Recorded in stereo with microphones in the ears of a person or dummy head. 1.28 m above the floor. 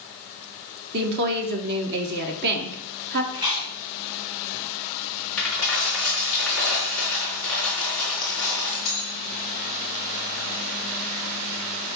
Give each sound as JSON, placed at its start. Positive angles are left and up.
{"t": 0.9, "sound": "a woman speaking", "side_deg": -60, "distance_m": 1.3}
{"t": 3.3, "sound": "chewing", "side_deg": -20, "distance_m": 2.5}
{"t": 5.4, "sound": "a dropped coin", "side_deg": 5, "distance_m": 3.5}